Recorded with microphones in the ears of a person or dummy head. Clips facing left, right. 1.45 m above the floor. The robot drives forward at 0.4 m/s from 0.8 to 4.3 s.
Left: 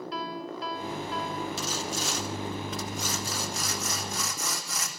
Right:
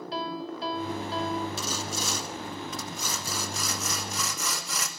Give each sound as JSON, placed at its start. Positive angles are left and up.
{"t": 0.1, "sound": "a piano", "side_deg": -25, "distance_m": 2.5}
{"t": 1.6, "sound": "sawing", "side_deg": -75, "distance_m": 1.9}